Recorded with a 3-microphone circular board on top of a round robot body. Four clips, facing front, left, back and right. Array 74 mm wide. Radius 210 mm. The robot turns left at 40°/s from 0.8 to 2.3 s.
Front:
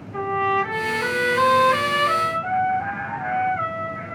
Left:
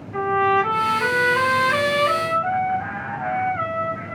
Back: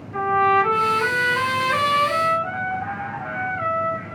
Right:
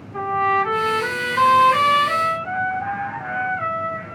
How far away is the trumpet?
About 1.3 m.